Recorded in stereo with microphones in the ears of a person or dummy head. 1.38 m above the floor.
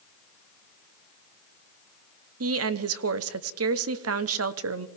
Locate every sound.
2.4 s a woman speaking: 70° right (ahead or behind), 0.8 m